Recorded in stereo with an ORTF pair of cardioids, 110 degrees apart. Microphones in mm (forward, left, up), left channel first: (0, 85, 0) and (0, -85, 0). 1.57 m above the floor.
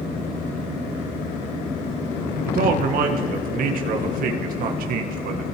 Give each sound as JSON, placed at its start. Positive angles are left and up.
{"t": 2.5, "sound": "a man speaking", "azimuth_deg": -65, "distance_m": 1.6}